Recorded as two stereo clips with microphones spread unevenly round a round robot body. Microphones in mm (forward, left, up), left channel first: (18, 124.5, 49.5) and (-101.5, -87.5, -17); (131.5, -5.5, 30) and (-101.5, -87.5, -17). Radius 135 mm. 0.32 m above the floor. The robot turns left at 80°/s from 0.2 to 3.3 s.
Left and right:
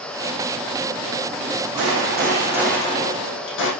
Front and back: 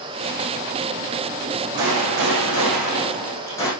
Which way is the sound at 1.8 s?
140° right.